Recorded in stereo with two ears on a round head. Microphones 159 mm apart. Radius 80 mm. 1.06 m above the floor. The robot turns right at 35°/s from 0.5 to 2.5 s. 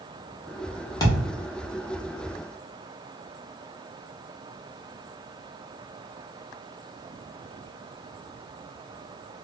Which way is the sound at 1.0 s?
20° left (ahead or behind).